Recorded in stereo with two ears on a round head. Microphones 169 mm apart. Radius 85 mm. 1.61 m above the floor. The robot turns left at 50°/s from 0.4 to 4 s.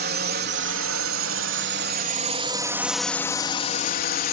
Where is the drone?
50° right; by 4.3 s 130° left.